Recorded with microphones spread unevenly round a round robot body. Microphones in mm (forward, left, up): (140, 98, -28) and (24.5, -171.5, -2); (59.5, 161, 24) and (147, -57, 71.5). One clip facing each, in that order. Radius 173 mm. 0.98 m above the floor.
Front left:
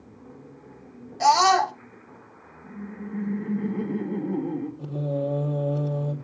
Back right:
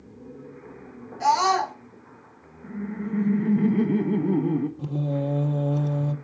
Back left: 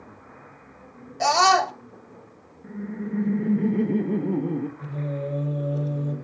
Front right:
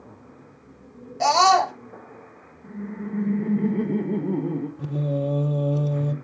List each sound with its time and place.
1.2 s a scream: 40° left, 2.5 m
2.6 s laughter: 165° right, 1.0 m
4.8 s singing: 60° right, 4 m